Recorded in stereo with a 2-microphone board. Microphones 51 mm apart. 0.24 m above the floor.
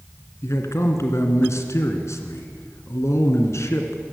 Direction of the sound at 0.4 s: 65° left (ahead or behind).